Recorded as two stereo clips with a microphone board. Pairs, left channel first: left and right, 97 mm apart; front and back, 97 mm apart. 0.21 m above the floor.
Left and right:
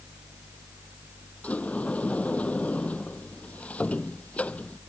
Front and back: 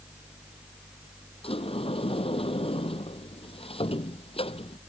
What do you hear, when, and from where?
1.4 s a sliding door: 15° left